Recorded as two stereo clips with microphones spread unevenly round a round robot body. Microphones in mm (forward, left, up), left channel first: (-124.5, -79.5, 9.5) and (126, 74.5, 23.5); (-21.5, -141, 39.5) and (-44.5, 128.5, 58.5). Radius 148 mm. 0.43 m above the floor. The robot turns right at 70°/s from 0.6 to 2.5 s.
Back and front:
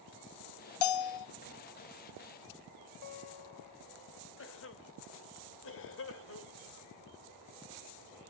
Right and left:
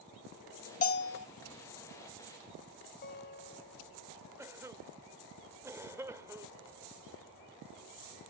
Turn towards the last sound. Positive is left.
turn(degrees=175)